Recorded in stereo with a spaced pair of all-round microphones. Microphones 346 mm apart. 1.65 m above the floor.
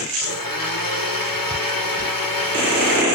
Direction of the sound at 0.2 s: 80° left.